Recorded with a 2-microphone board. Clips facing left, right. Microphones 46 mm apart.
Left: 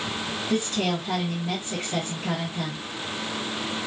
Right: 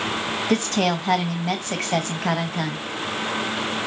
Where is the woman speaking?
75° right (ahead or behind), 0.7 m.